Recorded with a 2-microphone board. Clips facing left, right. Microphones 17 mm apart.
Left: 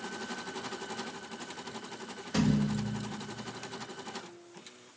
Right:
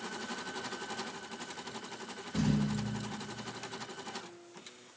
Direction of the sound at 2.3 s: 65° left (ahead or behind).